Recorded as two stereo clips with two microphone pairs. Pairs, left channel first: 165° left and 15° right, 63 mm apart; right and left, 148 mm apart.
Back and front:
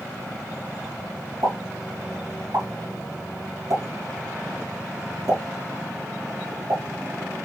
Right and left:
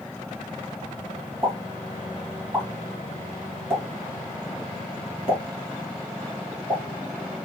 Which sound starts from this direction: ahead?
A pop, at 1.4 s.